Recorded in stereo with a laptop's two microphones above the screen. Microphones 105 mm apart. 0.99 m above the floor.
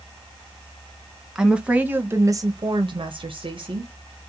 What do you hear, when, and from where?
1.4 s a woman speaking: 5° right (ahead or behind), 0.9 m; by 3.9 s 50° right (ahead or behind), 0.9 m